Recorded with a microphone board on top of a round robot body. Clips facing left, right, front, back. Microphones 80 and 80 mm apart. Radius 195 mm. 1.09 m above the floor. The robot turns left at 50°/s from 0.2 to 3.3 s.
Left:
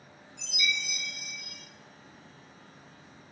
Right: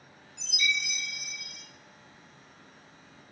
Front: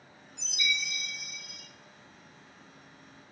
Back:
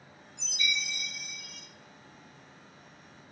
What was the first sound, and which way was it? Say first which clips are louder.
A chime: right 2 dB, front 1 dB; 10° right.